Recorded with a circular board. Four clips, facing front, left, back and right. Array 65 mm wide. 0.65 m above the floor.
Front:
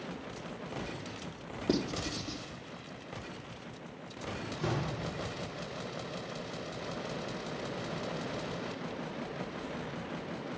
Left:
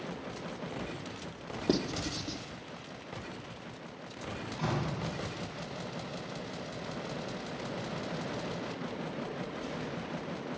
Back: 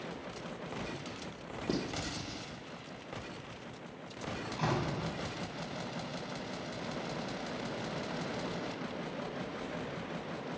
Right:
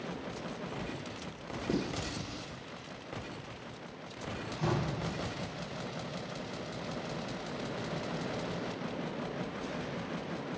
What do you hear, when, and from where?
1.7 s writing: 65° left, 0.8 m
4.5 s a door slam: straight behind, 3.5 m